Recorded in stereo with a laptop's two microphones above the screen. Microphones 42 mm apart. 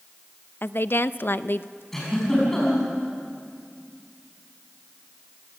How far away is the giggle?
About 5.5 m.